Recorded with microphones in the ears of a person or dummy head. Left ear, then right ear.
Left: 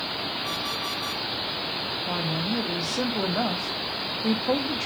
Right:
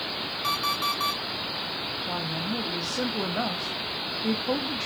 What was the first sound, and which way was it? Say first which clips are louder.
An alarm clock: right 3 dB; 50° right (ahead or behind).